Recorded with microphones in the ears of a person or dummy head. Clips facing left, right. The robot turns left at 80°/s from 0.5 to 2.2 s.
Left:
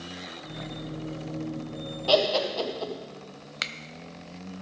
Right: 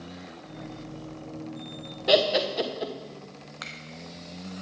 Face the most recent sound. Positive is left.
turn(degrees=40)  # may be behind; listen again after turning